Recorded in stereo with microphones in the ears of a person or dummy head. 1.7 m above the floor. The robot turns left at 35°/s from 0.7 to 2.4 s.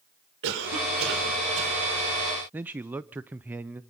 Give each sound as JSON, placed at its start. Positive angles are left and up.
{"t": 0.4, "sound": "a cough", "azimuth_deg": -65, "distance_m": 5.0}
{"t": 2.5, "sound": "a man speaking", "side_deg": -10, "distance_m": 0.6}